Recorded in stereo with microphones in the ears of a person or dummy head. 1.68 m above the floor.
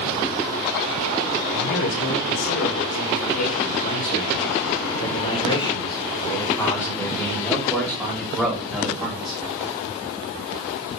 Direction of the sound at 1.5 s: 75° left (ahead or behind).